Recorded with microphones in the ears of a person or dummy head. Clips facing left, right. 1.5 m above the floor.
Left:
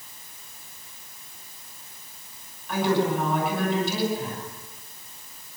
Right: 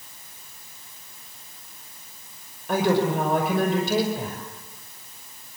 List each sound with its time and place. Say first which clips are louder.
2.7 s a woman speaking: right 2 dB; 45° right (ahead or behind), 5.5 m